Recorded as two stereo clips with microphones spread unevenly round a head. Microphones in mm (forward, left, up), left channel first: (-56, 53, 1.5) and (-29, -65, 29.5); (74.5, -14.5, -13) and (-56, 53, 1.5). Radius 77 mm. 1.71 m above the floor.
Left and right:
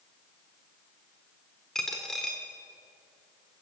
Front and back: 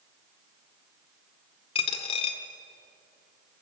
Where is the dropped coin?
5° right, 1.5 m.